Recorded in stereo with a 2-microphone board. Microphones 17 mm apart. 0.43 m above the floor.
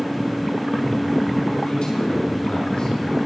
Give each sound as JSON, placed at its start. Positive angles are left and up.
{"t": 1.6, "sound": "a man speaking", "side_deg": 60, "distance_m": 5.0}